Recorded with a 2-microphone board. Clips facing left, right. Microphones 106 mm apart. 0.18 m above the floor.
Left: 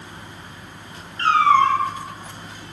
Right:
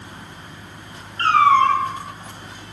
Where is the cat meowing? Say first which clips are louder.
Right 1 dB; 55° right (ahead or behind), 0.6 m.